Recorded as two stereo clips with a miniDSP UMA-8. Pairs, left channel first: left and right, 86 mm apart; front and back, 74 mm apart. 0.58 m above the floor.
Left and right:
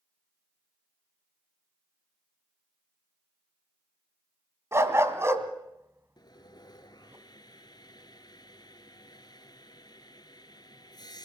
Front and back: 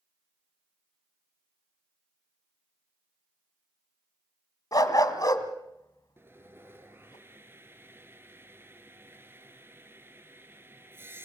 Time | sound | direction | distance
4.7 | a dog barking | 30° right | 1.6 m
6.2 | sawing | 125° left | 1.4 m